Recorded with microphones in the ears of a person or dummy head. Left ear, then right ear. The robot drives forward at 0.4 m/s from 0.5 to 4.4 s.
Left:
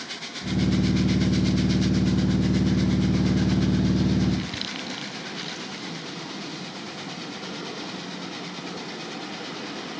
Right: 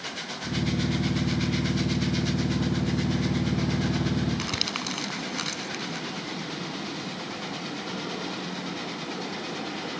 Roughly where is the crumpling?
Right.